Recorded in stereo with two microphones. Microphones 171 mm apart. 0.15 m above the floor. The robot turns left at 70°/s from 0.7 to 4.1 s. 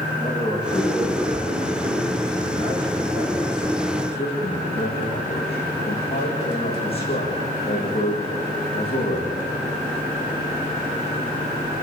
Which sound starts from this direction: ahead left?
A man speaking, at 0.2 s.